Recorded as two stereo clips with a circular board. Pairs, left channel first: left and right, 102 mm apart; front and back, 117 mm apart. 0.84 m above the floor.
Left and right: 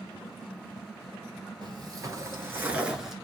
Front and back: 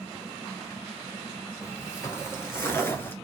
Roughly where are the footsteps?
Ahead right.